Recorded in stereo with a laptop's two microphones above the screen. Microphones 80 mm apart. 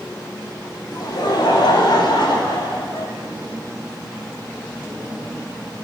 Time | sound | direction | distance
0.9 | laughter | 65° left (ahead or behind) | 5.5 m